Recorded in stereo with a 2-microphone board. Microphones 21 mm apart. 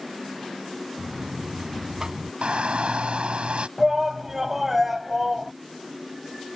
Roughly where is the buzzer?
Right.